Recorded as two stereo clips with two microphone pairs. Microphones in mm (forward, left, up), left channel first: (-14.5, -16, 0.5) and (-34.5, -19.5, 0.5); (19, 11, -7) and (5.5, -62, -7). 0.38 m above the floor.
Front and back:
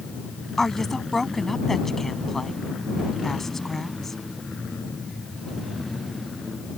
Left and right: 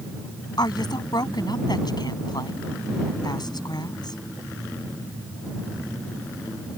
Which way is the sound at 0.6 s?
85° left.